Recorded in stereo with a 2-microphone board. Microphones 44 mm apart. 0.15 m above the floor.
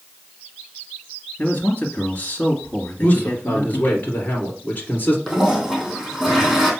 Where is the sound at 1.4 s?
50° left (ahead or behind), 2 m.